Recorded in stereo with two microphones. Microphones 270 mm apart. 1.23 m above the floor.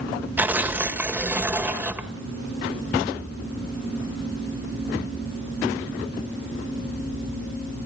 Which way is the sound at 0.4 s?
5° right (ahead or behind).